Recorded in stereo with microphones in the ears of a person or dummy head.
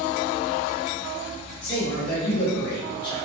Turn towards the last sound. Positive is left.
turn(degrees=65)  # may be behind; listen again after turning